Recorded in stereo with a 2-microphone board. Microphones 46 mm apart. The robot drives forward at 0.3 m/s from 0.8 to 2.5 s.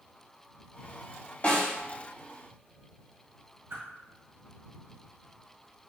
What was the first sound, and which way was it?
A snare drum, 40° left (ahead or behind).